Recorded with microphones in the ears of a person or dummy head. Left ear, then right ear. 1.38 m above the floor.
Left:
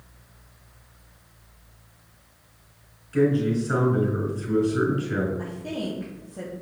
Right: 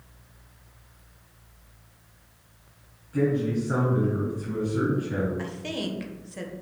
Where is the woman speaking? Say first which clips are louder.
Even; 50° right (ahead or behind), 1.2 m.